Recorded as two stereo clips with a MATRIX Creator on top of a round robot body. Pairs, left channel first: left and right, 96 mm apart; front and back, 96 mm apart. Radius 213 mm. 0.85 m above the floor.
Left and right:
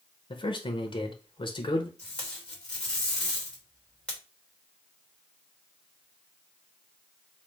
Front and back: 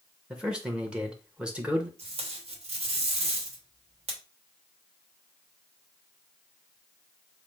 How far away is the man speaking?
About 1.0 m.